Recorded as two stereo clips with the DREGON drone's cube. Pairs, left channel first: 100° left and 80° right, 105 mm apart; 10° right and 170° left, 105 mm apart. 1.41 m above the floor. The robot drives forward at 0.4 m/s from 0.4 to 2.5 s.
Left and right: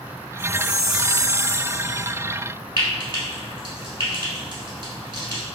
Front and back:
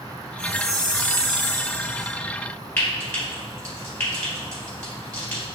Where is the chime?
85° right, 1.7 m; by 2.1 s 110° right, 1.8 m.